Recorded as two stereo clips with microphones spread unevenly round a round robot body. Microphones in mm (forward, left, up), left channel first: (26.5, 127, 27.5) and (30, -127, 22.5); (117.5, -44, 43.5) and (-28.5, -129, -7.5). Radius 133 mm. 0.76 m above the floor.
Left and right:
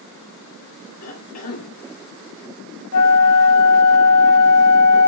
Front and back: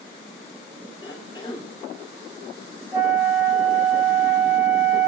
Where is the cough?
110° left, 1.7 m.